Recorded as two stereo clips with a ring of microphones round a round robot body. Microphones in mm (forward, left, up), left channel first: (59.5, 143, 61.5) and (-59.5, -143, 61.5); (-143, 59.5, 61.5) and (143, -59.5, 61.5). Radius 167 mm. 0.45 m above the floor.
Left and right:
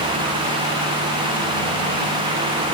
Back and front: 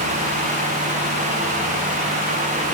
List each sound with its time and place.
Only background noise.